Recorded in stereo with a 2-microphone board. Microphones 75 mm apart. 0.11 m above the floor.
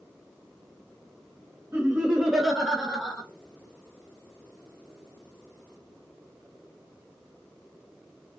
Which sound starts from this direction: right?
Laughter, at 1.7 s.